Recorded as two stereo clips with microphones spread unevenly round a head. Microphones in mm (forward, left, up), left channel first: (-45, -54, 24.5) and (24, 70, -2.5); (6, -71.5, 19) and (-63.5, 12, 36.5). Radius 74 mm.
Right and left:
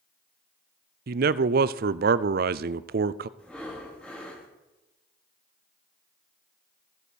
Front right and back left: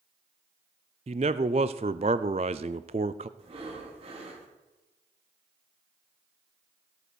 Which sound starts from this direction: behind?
Breathing, at 3.4 s.